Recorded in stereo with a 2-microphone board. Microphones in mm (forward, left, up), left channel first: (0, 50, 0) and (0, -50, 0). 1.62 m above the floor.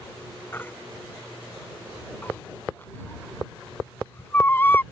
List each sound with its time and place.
0.5 s a baby crying: 20° left (ahead or behind)